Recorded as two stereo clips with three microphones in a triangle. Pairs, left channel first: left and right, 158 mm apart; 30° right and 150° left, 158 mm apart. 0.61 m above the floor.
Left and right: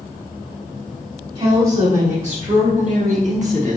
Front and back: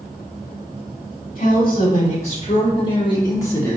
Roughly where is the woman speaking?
Ahead right.